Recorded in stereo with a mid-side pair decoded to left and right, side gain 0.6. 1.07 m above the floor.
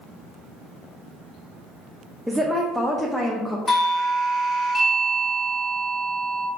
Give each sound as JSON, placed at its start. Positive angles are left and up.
{"t": 2.3, "sound": "a woman speaking", "azimuth_deg": 0, "distance_m": 0.6}
{"t": 3.7, "sound": "a doorbell", "azimuth_deg": 30, "distance_m": 1.8}